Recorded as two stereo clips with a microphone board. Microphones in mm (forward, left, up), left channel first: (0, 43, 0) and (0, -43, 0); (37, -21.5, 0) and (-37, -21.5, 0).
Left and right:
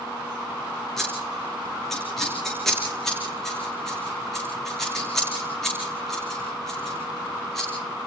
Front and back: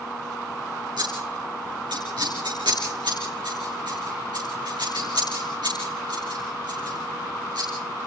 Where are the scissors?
175° left, 5 m.